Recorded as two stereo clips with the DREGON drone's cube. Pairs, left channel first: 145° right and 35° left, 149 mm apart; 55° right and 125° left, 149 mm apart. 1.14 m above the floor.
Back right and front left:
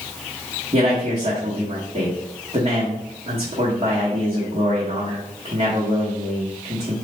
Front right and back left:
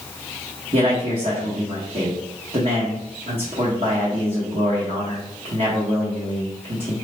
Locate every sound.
0.7 s a man speaking: 90° left, 1.0 m